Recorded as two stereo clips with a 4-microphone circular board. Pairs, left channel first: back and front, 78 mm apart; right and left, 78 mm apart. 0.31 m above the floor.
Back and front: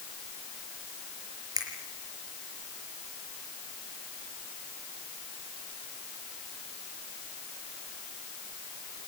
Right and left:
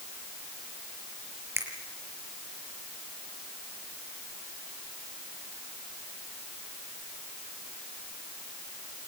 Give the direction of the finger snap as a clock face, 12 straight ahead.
11 o'clock.